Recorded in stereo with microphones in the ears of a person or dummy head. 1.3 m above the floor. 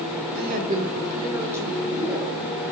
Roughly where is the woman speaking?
Right.